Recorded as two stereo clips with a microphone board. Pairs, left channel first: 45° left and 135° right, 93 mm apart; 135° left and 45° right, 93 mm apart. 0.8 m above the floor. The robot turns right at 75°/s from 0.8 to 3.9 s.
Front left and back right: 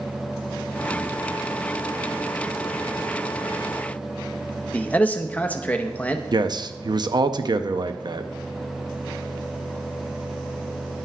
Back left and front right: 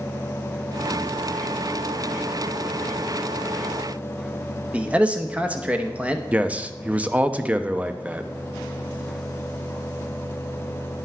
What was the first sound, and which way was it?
A man speaking, straight ahead.